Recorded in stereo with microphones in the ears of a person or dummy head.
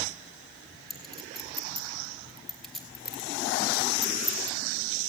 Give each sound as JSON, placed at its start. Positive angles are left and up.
{"t": 0.9, "sound": "a clink", "side_deg": -5, "distance_m": 4.0}